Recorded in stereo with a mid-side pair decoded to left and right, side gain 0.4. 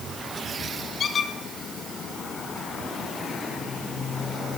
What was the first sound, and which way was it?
A squeak, 55° left.